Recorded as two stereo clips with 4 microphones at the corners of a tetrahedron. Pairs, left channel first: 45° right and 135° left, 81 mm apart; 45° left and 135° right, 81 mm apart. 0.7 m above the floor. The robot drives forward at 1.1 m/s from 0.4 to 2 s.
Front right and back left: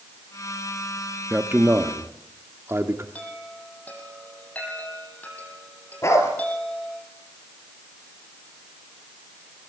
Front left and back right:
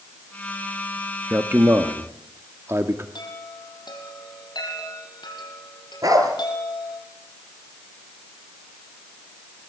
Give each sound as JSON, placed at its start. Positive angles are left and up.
{"t": 1.3, "sound": "a man speaking", "azimuth_deg": 180, "distance_m": 1.1}
{"t": 3.1, "sound": "a chime", "azimuth_deg": 25, "distance_m": 5.5}
{"t": 6.0, "sound": "a dog barking", "azimuth_deg": -95, "distance_m": 3.5}